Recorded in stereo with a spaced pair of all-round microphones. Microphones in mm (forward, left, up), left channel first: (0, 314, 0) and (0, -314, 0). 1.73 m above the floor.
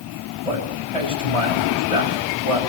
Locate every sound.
0.5 s a man speaking: 70° right (ahead or behind), 9.5 m